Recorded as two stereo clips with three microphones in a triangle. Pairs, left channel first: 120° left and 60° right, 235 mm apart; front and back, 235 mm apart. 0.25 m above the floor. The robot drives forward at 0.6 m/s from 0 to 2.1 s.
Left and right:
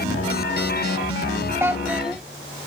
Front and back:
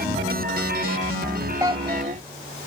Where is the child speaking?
125° right; by 2.2 s 145° right.